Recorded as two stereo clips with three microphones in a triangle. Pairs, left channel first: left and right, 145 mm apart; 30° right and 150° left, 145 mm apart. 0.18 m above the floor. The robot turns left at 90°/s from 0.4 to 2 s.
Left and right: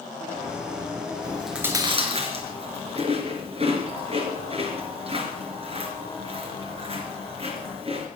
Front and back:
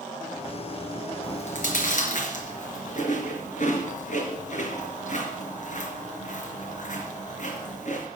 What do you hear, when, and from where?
1.2 s chewing: 20° left, 4 m; by 8.1 s 50° right, 4 m